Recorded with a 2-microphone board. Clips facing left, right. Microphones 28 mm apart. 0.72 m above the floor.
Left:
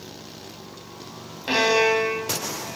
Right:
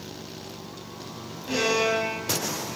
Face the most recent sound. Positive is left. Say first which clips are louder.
# left 5 dB
turn(degrees=45)  # may be behind; listen again after turning